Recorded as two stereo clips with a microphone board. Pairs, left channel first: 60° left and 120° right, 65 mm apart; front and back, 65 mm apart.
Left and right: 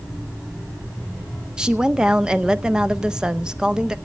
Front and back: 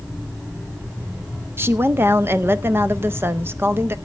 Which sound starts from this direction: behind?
A woman speaking, at 1.6 s.